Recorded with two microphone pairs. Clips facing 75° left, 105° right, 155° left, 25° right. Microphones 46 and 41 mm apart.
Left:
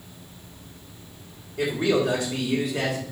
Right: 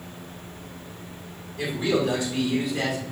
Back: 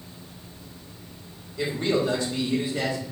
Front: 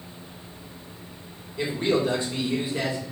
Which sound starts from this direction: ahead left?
A man speaking, at 1.6 s.